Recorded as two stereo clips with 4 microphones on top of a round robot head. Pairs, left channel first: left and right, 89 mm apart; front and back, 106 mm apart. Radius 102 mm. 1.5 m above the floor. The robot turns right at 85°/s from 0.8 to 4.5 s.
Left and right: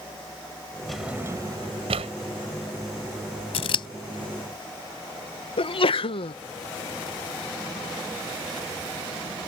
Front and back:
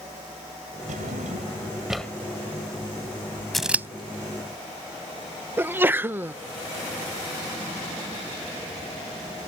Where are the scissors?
85° left; by 3.9 s 115° left.